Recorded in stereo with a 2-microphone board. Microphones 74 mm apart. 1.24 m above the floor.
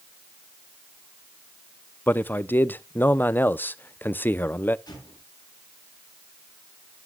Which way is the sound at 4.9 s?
60° left (ahead or behind).